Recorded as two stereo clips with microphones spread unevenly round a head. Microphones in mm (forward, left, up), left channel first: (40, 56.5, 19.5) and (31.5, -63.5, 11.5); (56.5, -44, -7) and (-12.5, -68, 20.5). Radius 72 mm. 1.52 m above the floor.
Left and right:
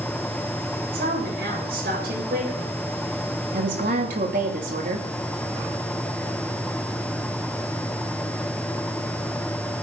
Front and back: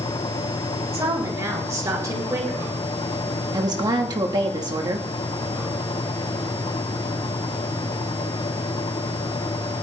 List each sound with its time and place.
0.9 s a woman speaking: 120° right, 7.5 m
3.5 s a woman speaking: 130° right, 3 m